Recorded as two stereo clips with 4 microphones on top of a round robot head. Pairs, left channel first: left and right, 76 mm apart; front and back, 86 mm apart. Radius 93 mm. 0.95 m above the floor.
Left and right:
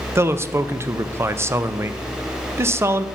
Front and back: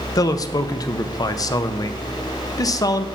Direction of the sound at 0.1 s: 40° right.